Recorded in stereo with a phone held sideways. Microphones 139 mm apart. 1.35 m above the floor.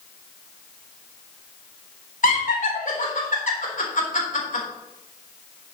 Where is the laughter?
70° left (ahead or behind), 4 m.